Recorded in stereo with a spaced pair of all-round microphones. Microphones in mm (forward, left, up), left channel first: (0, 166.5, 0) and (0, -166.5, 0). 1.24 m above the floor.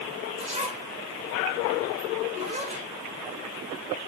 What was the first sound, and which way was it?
A zipper, 20° right (ahead or behind).